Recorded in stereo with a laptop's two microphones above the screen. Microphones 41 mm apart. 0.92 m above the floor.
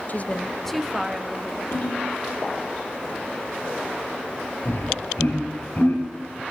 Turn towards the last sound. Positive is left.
turn(degrees=60)  # may be behind; listen again after turning